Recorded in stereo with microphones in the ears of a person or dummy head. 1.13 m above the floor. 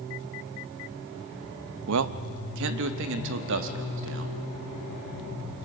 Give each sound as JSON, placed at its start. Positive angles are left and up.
{"t": 1.9, "sound": "a man speaking", "side_deg": -80, "distance_m": 0.7}